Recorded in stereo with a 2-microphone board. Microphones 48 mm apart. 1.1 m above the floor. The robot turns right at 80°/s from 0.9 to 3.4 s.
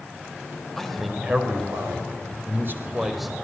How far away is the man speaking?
About 4.5 m.